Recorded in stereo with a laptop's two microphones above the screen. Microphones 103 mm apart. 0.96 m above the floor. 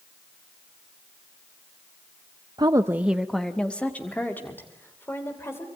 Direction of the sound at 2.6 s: 45° right (ahead or behind).